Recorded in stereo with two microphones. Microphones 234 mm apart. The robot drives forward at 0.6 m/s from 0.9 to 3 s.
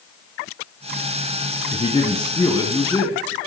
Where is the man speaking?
20° left (ahead or behind), 1.3 m; by 3.2 s 15° left (ahead or behind), 1.7 m.